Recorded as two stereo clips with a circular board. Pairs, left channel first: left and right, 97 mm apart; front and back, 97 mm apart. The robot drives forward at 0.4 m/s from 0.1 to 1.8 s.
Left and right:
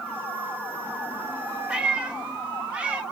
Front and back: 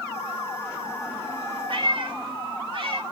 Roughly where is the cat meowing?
Behind.